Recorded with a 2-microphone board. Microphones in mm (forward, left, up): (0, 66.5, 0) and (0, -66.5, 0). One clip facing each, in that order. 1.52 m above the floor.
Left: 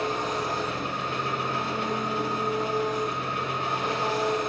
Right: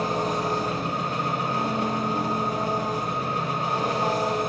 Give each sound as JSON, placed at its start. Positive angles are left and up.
{"t": 0.0, "sound": "an engine running", "side_deg": -40, "distance_m": 2.0}